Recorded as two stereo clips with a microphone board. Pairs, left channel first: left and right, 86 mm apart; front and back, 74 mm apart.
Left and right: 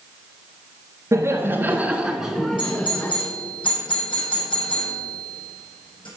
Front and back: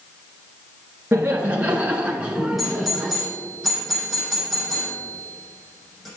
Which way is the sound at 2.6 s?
90° left.